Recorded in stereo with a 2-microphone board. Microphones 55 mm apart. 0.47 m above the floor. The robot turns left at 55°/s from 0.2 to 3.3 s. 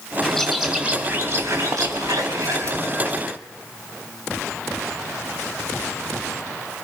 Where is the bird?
15° left, 3 m; by 3.4 s 155° right, 3 m.